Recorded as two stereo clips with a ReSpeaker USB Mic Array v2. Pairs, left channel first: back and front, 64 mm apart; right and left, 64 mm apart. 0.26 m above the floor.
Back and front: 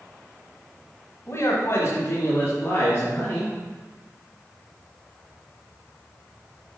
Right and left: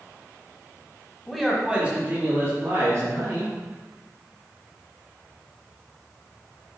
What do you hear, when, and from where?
1.3 s a man speaking: 170° right, 1.4 m; by 3.5 s 120° left, 3 m